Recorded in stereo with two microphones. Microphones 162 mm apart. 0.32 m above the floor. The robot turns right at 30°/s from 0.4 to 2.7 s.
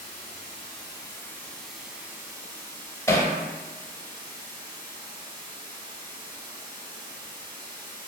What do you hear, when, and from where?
0.0 s running water: 140° left, 0.8 m; by 8.1 s 150° right, 0.8 m
3.1 s hammering: 15° left (ahead or behind), 0.7 m